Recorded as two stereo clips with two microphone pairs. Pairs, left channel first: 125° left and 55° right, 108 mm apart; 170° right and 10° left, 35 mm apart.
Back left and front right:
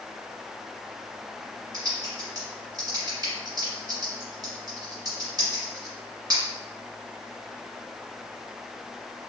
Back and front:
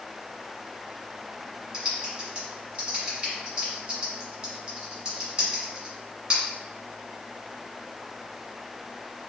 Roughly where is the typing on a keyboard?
Ahead right.